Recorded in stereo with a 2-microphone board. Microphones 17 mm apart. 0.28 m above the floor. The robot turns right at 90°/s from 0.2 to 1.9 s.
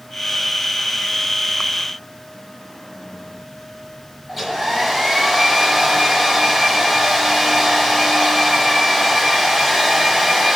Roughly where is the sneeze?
No sneeze in this recording.